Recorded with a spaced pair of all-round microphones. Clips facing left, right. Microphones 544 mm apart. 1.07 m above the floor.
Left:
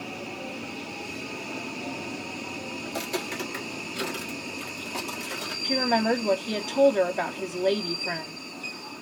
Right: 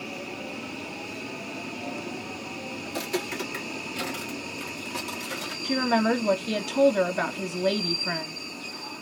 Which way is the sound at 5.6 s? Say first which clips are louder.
Right 1 dB; 35° right (ahead or behind).